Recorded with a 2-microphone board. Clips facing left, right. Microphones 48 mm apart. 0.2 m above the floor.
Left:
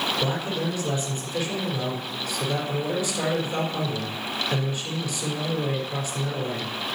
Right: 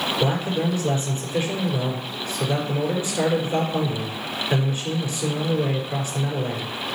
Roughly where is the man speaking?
Right.